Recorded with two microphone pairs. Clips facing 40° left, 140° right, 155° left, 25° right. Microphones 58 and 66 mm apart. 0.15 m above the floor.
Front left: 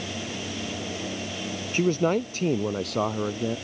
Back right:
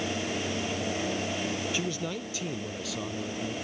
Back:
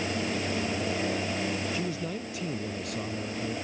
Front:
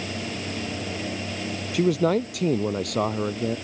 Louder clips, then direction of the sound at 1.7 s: Front left 10 dB, front 12 dB; 10° right.